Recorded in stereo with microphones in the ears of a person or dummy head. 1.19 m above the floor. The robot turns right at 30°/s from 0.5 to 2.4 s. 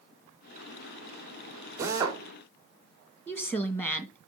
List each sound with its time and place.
1.8 s a drill: 15° right (ahead or behind), 2 m; by 2.2 s 30° right (ahead or behind), 2 m
3.3 s a woman speaking: 10° left (ahead or behind), 1.5 m